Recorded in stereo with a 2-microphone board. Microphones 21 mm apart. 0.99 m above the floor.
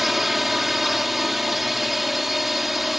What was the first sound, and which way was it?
A drone, 10° right (ahead or behind).